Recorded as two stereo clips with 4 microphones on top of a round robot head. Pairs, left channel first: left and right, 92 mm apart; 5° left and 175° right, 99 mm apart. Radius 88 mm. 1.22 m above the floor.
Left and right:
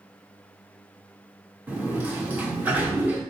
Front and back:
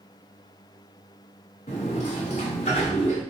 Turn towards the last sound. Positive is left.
turn(degrees=-20)